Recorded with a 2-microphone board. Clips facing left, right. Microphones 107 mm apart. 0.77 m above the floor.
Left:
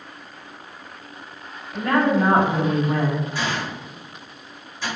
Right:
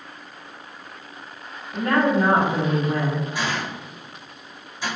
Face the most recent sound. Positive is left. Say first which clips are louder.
# even
turn(degrees=-15)  # may be behind; listen again after turning